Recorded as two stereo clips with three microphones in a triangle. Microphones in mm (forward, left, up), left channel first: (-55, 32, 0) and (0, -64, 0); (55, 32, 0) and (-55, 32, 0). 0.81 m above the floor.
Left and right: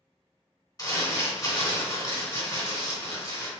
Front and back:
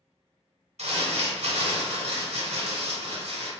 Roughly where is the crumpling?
Behind.